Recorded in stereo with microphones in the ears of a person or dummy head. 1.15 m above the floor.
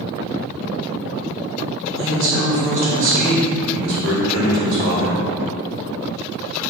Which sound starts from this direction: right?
A man speaking, at 2.0 s.